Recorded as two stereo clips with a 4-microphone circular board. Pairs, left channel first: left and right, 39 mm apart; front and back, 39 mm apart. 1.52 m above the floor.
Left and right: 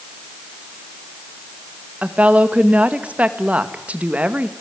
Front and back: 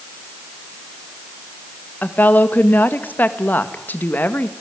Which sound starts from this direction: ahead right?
A woman speaking, at 2.0 s.